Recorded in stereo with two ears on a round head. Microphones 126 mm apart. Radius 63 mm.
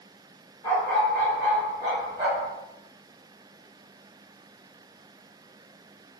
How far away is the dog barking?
About 1.0 m.